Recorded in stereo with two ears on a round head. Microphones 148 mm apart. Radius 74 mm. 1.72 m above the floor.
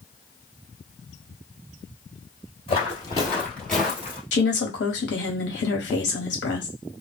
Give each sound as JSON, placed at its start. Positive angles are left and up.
{"t": 2.7, "sound": "footsteps", "side_deg": 30, "distance_m": 2.0}
{"t": 4.3, "sound": "a woman speaking", "side_deg": 75, "distance_m": 1.2}